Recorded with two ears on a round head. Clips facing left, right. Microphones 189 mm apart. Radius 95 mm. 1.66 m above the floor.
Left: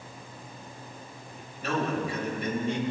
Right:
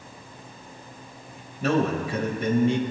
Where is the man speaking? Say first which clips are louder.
Right 6 dB; 60° right (ahead or behind), 2.5 m.